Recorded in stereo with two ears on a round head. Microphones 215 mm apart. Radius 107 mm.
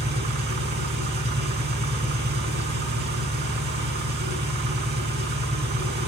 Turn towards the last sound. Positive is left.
turn(degrees=-45)  # may be behind; listen again after turning